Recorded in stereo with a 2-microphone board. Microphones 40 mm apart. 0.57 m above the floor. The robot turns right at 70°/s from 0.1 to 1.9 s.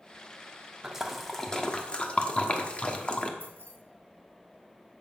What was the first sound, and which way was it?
A splash, 15° right (ahead or behind).